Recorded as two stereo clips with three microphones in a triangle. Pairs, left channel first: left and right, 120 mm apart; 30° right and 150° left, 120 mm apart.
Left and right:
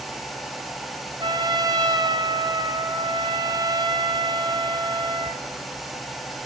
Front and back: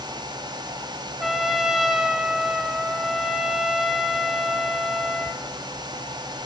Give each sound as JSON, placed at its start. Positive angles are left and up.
{"t": 1.2, "sound": "a trumpet", "azimuth_deg": -125, "distance_m": 0.6}